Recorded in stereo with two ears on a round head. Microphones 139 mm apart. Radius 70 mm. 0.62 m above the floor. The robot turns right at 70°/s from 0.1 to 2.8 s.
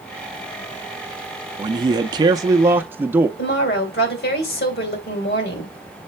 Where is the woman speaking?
65° left (ahead or behind), 2.5 m.